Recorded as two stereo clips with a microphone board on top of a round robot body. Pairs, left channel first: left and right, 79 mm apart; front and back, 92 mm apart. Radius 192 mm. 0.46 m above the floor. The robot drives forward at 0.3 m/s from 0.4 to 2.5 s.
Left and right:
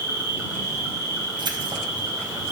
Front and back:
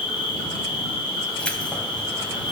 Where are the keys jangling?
80° right, 3 m; by 2.5 s 85° right, 2.5 m.